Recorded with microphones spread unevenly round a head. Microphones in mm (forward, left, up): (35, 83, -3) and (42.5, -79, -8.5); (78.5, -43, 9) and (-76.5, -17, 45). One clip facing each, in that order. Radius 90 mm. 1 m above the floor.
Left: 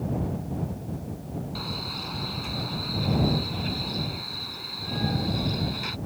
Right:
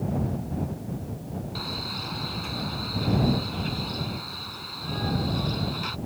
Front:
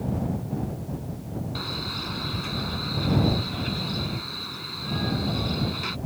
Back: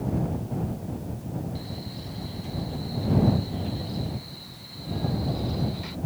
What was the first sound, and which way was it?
A man speaking, 5° left.